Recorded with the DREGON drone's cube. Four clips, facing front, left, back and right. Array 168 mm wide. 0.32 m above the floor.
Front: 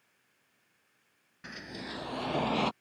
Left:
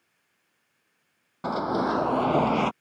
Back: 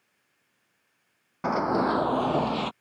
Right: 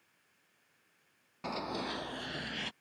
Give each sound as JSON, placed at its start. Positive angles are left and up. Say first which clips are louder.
{"t": 1.4, "sound": "running footsteps", "louder": "left 12 dB, back 20 dB", "azimuth_deg": 155}